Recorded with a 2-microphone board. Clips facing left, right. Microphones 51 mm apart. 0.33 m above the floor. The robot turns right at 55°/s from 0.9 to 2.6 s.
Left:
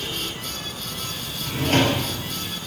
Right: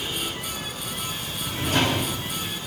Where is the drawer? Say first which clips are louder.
Left 3 dB; 40° left, 3 m; by 2.0 s 75° left, 3 m.